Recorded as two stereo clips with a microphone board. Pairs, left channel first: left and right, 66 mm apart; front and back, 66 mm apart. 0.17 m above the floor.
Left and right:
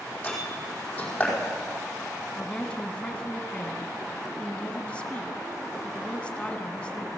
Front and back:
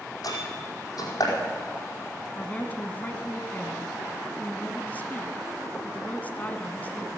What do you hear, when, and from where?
0.2 s a door slam: 20° left, 4.5 m
2.4 s a woman speaking: 35° left, 1.2 m